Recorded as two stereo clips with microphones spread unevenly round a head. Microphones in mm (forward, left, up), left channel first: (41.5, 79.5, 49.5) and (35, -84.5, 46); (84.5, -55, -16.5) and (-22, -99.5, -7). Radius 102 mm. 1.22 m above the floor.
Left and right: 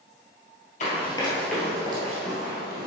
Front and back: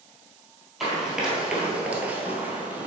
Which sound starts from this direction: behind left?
Running footsteps, at 0.8 s.